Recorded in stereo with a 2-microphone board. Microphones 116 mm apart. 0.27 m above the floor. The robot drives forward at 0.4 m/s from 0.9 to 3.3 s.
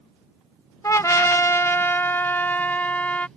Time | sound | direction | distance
0.8 | a trumpet | 25° left (ahead or behind) | ?